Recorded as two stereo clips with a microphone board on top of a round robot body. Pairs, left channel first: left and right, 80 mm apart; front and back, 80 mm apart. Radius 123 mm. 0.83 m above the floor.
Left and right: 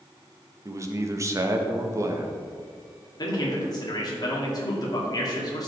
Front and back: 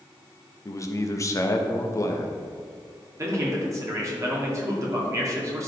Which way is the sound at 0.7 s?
45° right.